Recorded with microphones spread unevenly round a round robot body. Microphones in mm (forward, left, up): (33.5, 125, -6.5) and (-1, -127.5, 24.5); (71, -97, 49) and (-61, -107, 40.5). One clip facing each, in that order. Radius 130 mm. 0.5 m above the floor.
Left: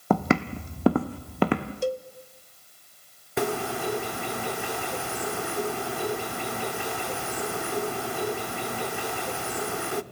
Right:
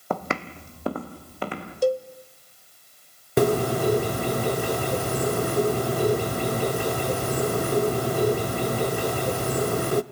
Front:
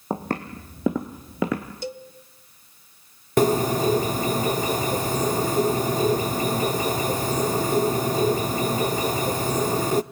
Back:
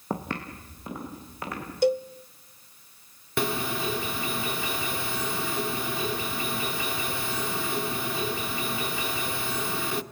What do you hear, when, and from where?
0.1 s footsteps: 85° left, 1.0 m; by 1.7 s 45° left, 1.9 m
1.8 s a cowbell: 150° right, 1.0 m
3.4 s a bird: 45° right, 0.6 m